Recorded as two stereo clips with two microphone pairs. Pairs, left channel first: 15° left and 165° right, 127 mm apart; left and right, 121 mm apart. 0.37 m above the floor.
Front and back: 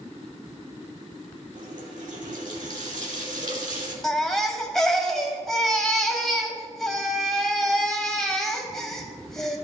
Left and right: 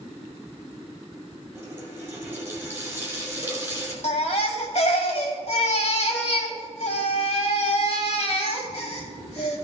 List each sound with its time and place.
1.6 s a running tap: 160° right, 3 m
4.0 s a baby crying: 105° left, 1.3 m